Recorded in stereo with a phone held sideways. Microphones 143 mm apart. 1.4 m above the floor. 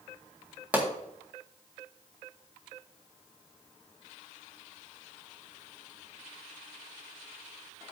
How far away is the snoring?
I don't hear snoring.